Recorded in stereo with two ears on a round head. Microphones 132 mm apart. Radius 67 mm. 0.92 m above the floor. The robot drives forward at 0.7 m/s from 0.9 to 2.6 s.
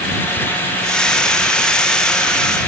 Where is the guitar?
I don't hear a guitar.